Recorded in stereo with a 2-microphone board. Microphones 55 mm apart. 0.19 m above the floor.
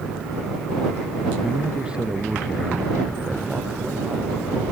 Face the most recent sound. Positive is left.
turn(degrees=-20)  # may be behind; listen again after turning